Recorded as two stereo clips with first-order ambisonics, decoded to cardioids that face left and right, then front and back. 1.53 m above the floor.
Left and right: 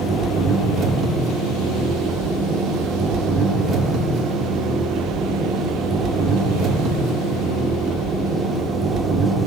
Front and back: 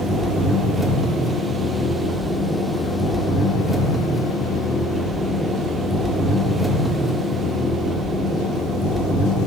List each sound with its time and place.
0.0 s an engine running: 85° right, 1.2 m